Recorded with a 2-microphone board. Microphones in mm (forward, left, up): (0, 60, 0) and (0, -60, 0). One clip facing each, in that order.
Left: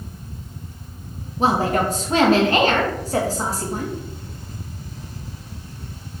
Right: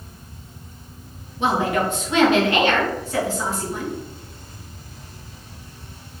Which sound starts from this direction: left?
A woman speaking, at 1.4 s.